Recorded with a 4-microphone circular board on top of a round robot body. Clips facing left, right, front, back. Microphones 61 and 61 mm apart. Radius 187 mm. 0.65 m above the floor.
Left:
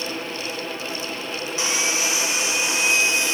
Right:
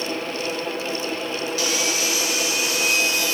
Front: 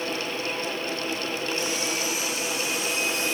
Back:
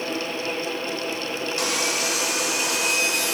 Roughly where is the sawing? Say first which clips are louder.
Left 3 dB, back 3 dB; behind left.